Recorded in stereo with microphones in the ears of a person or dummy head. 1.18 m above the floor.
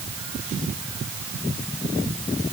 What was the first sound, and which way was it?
Only background noise.